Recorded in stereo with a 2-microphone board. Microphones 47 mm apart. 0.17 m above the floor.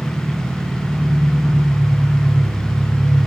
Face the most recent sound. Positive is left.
turn(degrees=-5)  # may be behind; listen again after turning